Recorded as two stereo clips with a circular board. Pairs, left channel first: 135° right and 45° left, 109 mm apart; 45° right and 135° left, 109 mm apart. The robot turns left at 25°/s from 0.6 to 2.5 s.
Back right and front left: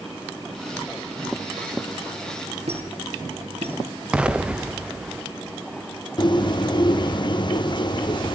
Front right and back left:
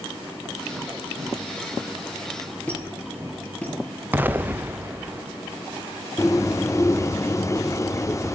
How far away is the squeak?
About 4.5 m.